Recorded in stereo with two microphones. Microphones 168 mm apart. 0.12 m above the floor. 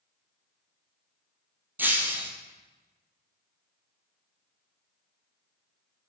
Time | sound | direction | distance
1.8 | breaking glass | 10° right (ahead or behind) | 1.7 m